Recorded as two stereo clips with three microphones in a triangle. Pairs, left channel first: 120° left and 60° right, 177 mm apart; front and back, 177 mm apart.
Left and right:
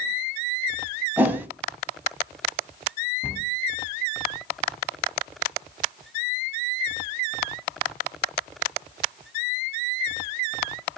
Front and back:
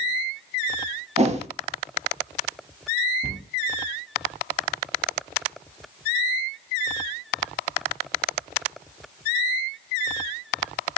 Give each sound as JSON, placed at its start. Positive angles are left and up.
{"t": 1.2, "sound": "a whoosh", "azimuth_deg": -140, "distance_m": 0.5}
{"t": 3.2, "sound": "a cupboard door", "azimuth_deg": -165, "distance_m": 0.7}